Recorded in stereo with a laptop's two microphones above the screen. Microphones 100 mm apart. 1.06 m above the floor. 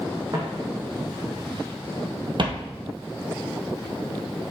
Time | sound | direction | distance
0.3 | footsteps | 40° right (ahead or behind) | 3 m